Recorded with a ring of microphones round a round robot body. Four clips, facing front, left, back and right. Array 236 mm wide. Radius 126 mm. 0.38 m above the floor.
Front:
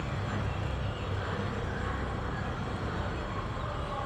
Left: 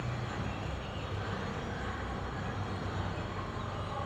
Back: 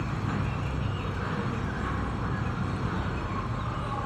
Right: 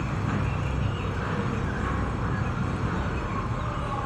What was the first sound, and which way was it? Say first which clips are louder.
An insect: right 9 dB, back 4 dB; 115° right.